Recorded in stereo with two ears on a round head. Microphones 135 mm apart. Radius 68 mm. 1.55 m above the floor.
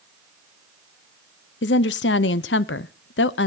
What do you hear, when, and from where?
1.6 s a woman speaking: 85° left, 0.6 m